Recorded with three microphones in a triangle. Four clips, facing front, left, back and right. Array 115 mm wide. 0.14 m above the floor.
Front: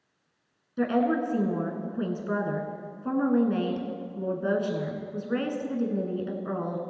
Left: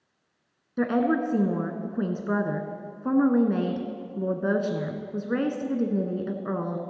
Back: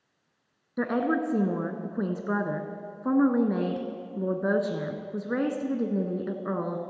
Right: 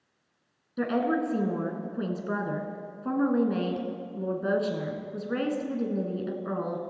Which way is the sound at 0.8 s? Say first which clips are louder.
Left 3 dB, front 2 dB; 140° left.